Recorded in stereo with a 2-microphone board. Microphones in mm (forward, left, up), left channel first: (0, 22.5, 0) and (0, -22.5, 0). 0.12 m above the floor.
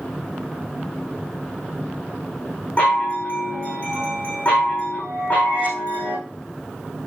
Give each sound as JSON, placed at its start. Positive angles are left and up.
{"t": 2.8, "sound": "a chime", "side_deg": 30, "distance_m": 7.0}